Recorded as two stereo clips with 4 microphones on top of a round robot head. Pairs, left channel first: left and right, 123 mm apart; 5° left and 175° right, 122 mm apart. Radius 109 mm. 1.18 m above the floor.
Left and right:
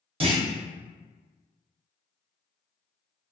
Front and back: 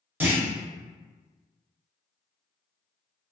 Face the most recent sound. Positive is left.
turn(degrees=-105)